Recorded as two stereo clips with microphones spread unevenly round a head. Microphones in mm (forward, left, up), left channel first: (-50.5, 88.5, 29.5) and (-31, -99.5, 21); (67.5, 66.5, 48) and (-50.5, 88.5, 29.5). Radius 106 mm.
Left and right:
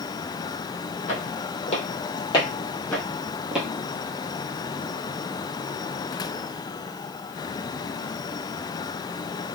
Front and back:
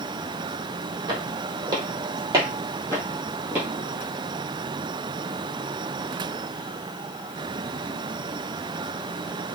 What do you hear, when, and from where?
1.1 s footsteps: 125° left, 1.9 m; by 3.7 s 105° right, 1.3 m